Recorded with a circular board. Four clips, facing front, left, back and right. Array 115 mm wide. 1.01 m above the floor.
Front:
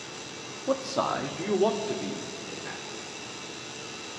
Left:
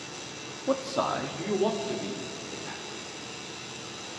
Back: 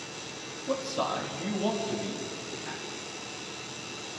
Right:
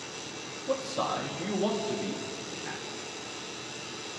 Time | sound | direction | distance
0.7 | a man speaking | 55° left | 1.6 m